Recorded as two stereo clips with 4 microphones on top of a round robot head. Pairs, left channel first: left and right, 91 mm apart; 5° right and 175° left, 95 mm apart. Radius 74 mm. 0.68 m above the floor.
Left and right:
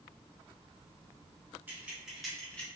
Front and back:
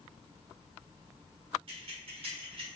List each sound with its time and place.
1.7 s keys jangling: 160° right, 1.1 m; by 2.7 s 165° left, 1.1 m